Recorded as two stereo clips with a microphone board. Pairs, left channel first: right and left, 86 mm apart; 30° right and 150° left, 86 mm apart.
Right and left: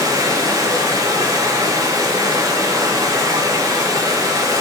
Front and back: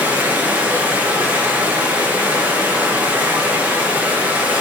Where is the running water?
85° left, 0.8 m.